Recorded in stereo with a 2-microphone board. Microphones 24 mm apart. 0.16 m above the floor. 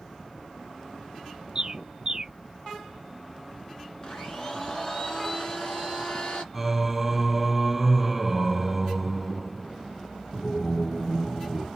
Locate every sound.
1.6 s a bird: 35° right (ahead or behind), 0.7 m
4.0 s a blender: 30° left (ahead or behind), 2 m
6.5 s singing: 5° right (ahead or behind), 1.7 m